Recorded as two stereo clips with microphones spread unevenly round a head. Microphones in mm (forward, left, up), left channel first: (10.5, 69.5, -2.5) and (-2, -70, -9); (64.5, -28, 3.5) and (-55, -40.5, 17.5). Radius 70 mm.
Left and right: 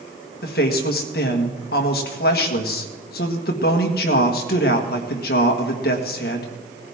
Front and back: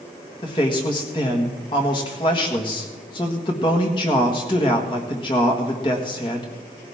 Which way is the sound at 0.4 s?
65° left.